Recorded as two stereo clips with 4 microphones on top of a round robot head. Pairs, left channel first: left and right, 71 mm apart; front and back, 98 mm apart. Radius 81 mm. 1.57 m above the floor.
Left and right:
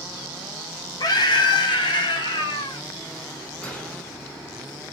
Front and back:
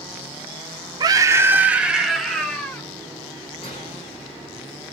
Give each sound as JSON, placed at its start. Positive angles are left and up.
{"t": 1.0, "sound": "a scream", "azimuth_deg": 135, "distance_m": 0.8}
{"t": 3.6, "sound": "a gunshot", "azimuth_deg": 20, "distance_m": 2.0}